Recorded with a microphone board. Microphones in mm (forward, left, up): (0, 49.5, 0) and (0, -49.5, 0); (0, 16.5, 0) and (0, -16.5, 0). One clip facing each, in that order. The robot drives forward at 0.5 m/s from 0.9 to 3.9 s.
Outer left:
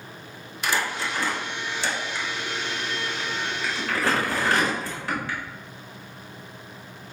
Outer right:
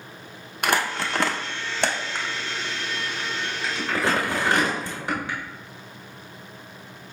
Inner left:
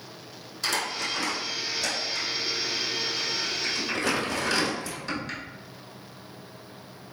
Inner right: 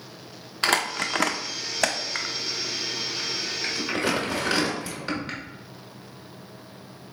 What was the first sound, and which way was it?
Crumpling, 60° right (ahead or behind).